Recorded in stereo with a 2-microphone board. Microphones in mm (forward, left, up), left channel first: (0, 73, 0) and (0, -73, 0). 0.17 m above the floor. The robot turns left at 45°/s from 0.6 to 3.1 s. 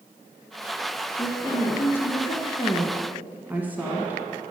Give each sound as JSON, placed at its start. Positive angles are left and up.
{"t": 1.2, "sound": "a woman speaking", "azimuth_deg": 65, "distance_m": 1.2}